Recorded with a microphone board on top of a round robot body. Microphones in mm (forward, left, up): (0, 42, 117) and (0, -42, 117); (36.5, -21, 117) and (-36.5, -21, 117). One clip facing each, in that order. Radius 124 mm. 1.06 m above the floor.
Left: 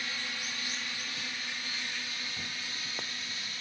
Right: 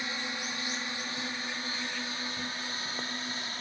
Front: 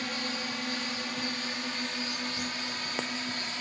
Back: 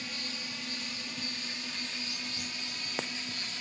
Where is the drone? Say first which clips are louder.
Right 3 dB, front 7 dB; 25° right; by 3.6 s 40° right.